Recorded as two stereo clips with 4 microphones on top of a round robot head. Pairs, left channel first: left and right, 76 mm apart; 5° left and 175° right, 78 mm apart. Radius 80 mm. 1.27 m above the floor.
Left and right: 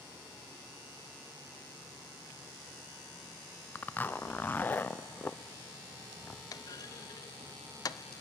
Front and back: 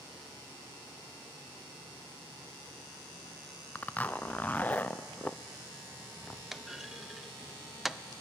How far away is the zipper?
About 0.6 m.